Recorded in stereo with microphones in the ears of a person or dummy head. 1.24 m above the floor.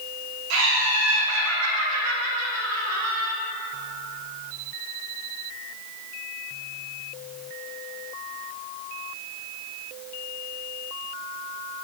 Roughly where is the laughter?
Right.